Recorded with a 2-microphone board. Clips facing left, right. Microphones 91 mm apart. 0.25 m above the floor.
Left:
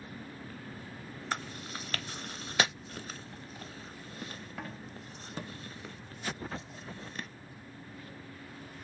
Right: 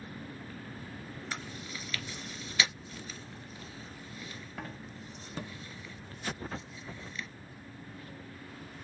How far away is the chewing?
About 0.5 m.